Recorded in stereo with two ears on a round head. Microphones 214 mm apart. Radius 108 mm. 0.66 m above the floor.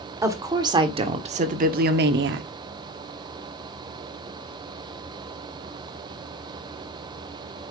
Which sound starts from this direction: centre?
A woman speaking, at 0.2 s.